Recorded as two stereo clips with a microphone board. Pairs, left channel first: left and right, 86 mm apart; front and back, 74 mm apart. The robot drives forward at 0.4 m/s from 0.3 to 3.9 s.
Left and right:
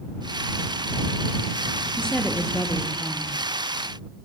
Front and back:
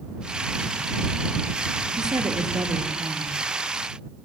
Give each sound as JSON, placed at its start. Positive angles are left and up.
{"t": 2.0, "sound": "a woman speaking", "azimuth_deg": 170, "distance_m": 3.0}